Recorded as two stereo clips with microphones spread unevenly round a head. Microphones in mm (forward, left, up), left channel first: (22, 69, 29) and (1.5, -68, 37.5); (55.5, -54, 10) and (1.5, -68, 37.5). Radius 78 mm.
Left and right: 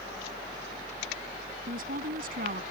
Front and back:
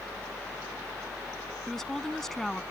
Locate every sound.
1.7 s a woman speaking: 70° right